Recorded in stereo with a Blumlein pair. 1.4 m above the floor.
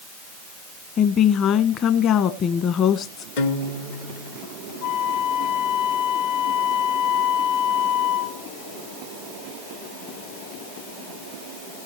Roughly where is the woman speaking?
Ahead left.